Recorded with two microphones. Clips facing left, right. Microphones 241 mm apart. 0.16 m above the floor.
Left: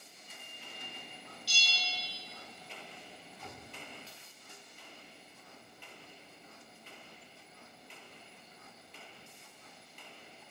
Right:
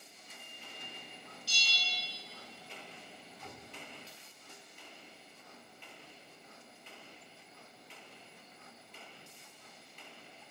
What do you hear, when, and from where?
1.5 s a bell: 55° right (ahead or behind), 0.9 m